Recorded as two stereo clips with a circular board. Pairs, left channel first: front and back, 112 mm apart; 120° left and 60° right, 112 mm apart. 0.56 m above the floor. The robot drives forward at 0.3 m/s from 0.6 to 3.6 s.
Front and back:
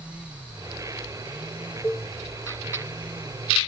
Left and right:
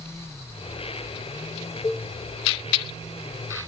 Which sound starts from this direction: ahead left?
A cowbell, at 1.8 s.